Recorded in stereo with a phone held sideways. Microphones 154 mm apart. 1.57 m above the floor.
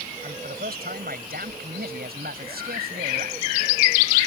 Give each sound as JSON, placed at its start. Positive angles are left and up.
{"t": 0.2, "sound": "a man speaking", "side_deg": -75}